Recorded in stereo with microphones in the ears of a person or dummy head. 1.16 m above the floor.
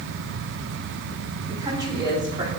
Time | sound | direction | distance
1.5 | a woman speaking | 20° right (ahead or behind) | 3 m